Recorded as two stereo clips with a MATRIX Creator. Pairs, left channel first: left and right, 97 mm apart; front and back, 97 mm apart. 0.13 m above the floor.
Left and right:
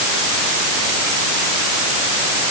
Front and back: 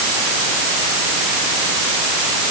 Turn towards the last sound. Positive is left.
No sound to turn to.